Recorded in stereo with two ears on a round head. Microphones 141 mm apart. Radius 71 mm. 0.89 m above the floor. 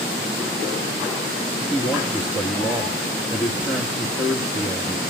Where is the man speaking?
Centre (ahead or behind), 1.1 m.